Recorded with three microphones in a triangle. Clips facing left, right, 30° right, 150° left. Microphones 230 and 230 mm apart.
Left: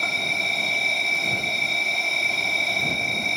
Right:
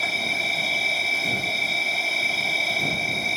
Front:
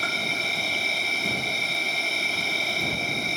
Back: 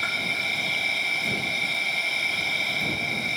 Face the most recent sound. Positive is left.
turn(degrees=-5)